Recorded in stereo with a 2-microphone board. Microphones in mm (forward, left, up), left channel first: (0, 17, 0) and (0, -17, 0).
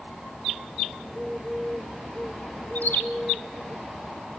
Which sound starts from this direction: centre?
A bird, at 1.0 s.